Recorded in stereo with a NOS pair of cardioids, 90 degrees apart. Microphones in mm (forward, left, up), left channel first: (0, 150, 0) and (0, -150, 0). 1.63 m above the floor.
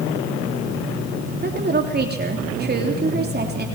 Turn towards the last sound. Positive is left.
turn(degrees=-35)